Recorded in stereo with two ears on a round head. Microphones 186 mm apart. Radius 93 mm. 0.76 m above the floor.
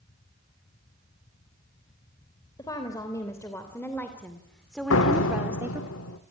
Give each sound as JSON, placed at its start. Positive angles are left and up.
{"t": 2.6, "sound": "a woman speaking", "side_deg": 20, "distance_m": 3.0}
{"t": 4.9, "sound": "a door slam", "side_deg": 70, "distance_m": 1.8}